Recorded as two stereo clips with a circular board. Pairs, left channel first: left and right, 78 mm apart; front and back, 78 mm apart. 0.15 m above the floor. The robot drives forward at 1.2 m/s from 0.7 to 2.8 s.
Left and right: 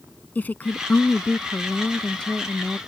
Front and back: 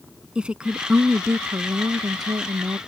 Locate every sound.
0.3 s a woman speaking: 120° left; by 2.8 s 170° left